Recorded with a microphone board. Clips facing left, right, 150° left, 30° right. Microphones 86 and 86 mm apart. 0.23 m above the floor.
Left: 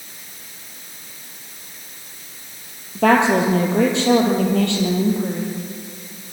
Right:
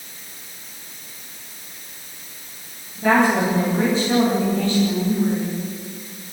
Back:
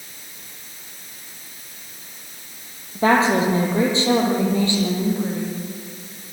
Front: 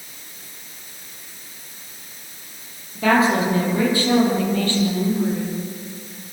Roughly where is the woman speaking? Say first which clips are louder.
Left 2 dB, back 1 dB; left.